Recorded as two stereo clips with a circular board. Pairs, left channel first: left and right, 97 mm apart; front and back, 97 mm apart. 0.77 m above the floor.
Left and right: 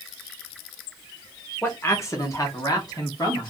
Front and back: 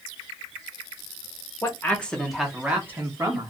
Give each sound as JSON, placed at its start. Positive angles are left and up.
{"t": 1.6, "sound": "a man speaking", "azimuth_deg": 40, "distance_m": 1.0}